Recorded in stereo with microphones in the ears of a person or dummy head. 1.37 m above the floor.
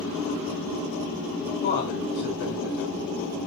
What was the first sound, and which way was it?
A man speaking, 65° left (ahead or behind).